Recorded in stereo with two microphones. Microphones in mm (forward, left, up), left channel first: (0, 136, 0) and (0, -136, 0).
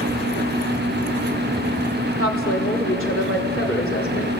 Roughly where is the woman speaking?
Left.